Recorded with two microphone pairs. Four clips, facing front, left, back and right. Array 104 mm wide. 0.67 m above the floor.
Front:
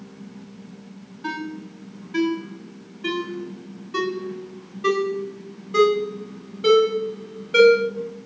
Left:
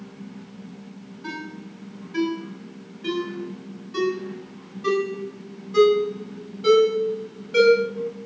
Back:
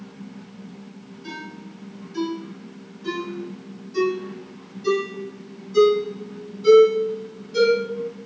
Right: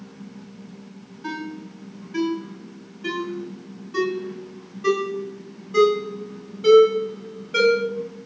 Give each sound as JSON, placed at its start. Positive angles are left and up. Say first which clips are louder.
{"t": 1.2, "sound": "a ringtone", "louder": "right 4 dB, front 7 dB", "azimuth_deg": -5, "distance_m": 1.5}